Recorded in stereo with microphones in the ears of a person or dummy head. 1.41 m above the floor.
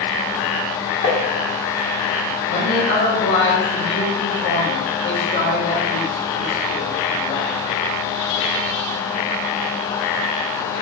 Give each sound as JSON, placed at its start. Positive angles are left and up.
{"t": 1.0, "sound": "tapping", "side_deg": 55, "distance_m": 1.1}
{"t": 2.5, "sound": "a man speaking", "side_deg": 65, "distance_m": 1.7}